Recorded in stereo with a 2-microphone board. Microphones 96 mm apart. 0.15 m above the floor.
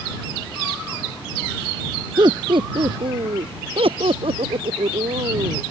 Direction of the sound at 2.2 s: 55° right (ahead or behind).